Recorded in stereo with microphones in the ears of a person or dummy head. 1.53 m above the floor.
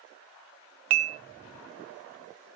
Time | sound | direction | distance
0.9 | dishes clattering | 40° right (ahead or behind) | 0.6 m